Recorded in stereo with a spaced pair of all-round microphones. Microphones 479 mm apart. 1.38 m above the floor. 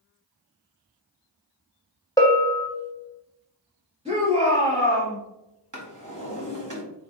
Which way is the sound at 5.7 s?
40° right (ahead or behind).